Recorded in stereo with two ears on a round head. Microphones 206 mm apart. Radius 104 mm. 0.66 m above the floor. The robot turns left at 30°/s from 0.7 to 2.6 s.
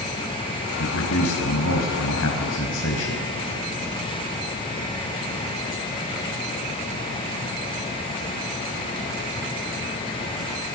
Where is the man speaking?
115° left, 4 m; by 3.3 s 60° left, 4 m.